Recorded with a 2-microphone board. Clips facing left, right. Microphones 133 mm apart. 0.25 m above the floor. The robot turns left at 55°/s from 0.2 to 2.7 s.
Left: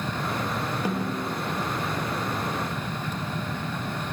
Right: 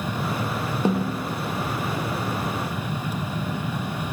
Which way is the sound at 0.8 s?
25° right (ahead or behind).